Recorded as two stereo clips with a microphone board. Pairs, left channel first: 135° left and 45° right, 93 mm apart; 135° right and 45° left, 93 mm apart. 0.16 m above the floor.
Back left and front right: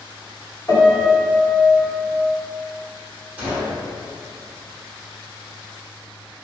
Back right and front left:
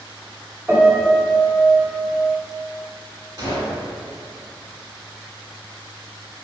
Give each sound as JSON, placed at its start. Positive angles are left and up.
{"t": 0.7, "sound": "a piano", "azimuth_deg": 105, "distance_m": 1.0}
{"t": 3.4, "sound": "a gunshot", "azimuth_deg": 25, "distance_m": 1.3}